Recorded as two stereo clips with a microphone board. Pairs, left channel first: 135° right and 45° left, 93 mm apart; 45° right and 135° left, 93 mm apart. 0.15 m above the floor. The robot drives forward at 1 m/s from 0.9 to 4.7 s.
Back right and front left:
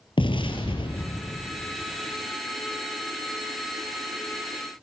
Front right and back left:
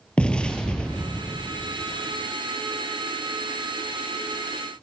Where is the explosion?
125° right, 1.7 m; by 1.4 s 135° right, 1.9 m.